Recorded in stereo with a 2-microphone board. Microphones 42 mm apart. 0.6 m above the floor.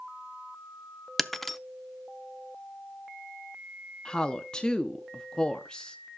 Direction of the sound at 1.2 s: 5° left (ahead or behind).